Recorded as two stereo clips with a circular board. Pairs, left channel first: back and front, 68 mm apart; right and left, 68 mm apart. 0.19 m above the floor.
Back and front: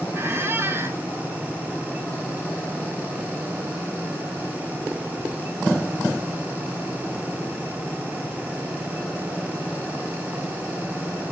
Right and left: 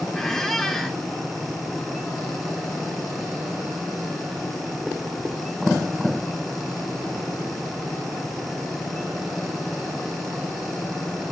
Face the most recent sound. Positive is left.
turn(degrees=-10)